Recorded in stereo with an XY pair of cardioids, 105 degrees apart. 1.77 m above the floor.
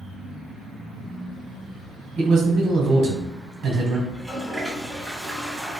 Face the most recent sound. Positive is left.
turn(degrees=-5)